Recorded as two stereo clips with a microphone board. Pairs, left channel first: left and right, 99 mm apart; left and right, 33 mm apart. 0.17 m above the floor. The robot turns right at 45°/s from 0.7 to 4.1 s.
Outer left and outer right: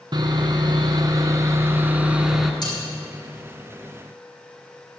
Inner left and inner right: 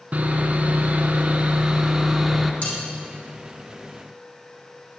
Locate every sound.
0.1 s sawing: 80° right, 1.1 m; by 2.5 s straight ahead, 1.1 m
2.6 s cutlery clinking: 45° left (ahead or behind), 5 m; by 2.8 s 50° left (ahead or behind), 5 m